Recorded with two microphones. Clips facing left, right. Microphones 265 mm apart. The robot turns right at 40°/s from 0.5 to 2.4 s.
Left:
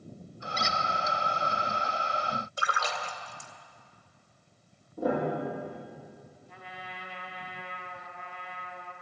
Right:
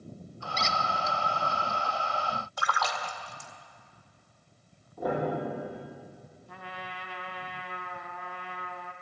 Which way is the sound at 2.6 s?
25° left (ahead or behind).